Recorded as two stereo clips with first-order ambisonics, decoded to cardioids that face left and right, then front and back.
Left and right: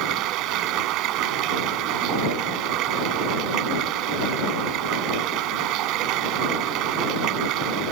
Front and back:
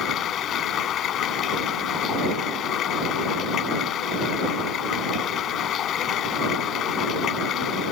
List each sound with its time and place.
0.0 s running water: 55° right